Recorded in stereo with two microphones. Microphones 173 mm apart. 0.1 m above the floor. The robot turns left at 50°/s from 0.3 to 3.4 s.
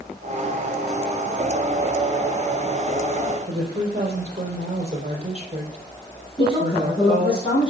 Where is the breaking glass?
I don't hear breaking glass.